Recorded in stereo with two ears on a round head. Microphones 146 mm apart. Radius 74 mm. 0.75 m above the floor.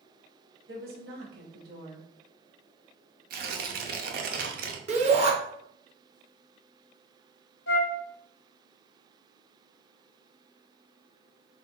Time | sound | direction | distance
0.7 | a woman speaking | 70° right (ahead or behind) | 2 m
3.3 | tearing paper | 65° right (ahead or behind) | 0.8 m
4.9 | a shout | 45° right (ahead or behind) | 1.4 m
7.7 | a flute | 75° left (ahead or behind) | 1.1 m